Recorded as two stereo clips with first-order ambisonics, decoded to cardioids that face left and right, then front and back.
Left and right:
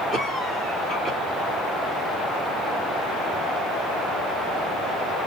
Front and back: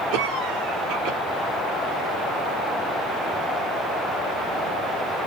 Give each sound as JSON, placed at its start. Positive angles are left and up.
{"t": 0.1, "sound": "a cough", "azimuth_deg": -165, "distance_m": 3.5}